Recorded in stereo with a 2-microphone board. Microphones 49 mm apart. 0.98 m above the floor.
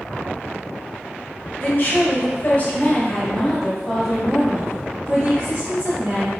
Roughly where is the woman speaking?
Left.